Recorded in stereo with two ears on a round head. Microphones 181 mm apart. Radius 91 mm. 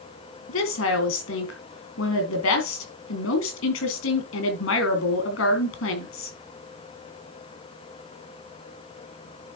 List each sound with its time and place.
0.5 s a woman speaking: 65° left (ahead or behind), 3.5 m